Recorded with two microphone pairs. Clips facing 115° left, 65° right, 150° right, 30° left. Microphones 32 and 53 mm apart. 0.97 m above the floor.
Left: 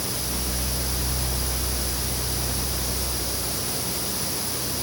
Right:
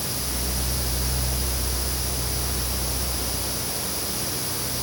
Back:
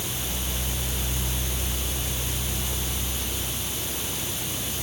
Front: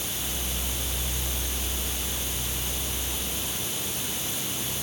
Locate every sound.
Only background noise.